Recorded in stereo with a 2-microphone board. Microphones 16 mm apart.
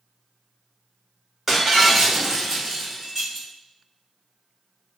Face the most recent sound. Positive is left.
turn(degrees=-15)  # may be behind; listen again after turning